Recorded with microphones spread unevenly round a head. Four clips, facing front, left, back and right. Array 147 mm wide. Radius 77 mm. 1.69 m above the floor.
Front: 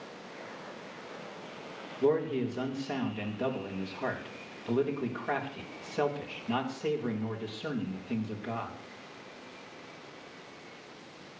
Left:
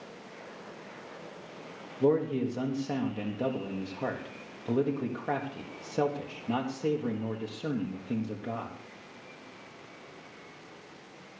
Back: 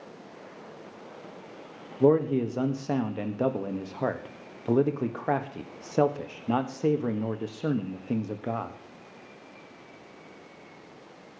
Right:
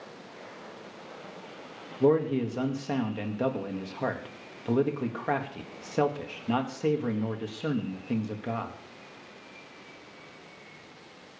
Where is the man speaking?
175° right, 1.2 m.